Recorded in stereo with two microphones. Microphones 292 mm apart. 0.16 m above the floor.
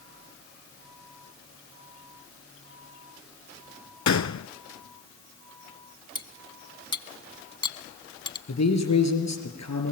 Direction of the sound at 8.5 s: 65° left (ahead or behind).